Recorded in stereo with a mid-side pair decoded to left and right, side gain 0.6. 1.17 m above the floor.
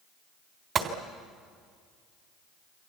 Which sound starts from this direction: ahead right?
A gunshot, at 0.8 s.